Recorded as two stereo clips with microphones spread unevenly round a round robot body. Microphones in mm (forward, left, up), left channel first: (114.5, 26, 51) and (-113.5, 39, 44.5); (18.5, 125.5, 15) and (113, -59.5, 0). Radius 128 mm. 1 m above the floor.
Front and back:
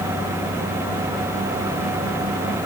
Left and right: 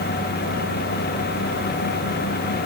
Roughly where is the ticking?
I don't hear ticking.